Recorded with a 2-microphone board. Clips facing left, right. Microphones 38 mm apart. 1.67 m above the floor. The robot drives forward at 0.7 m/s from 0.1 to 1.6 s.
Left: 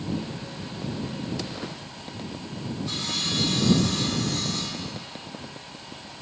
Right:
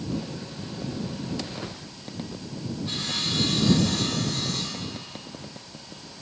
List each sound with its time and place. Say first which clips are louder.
2.9 s sawing: even; 25° right (ahead or behind), 8.5 m
4.3 s a cupboard door: left 1 dB; 70° left (ahead or behind), 0.7 m